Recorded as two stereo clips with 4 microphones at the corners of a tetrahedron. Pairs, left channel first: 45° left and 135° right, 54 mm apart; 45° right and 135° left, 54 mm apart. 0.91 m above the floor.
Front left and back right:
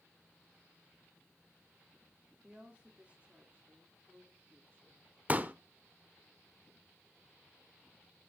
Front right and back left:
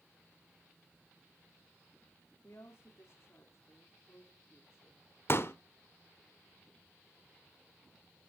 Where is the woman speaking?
65° right, 1.9 m; by 5.0 s 80° right, 3 m.